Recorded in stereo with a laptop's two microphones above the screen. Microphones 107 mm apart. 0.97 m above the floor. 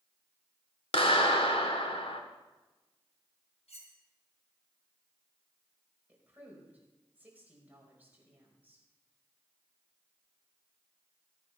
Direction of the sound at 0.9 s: 65° left (ahead or behind).